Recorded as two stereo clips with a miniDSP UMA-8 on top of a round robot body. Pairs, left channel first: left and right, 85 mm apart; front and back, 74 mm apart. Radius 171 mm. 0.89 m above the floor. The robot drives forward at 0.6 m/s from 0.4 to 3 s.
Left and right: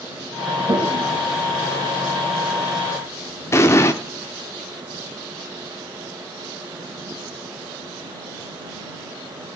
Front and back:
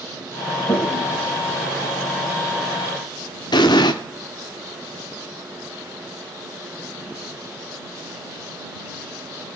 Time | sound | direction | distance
0.7 | a toilet flushing | 45° right | 3 m
3.5 | an explosion | 30° left | 0.7 m